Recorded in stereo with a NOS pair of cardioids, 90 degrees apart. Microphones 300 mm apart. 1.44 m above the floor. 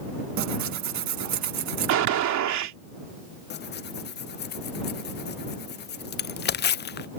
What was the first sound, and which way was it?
Tearing paper, 65° right.